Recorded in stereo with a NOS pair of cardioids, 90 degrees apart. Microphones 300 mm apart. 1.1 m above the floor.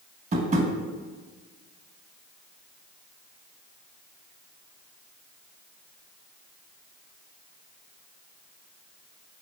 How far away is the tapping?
About 0.8 m.